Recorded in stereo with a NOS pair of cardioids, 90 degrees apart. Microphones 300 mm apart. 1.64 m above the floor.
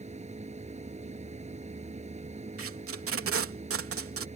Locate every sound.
0.0 s a machine running: 20° right
2.6 s tape being pulled: 50° right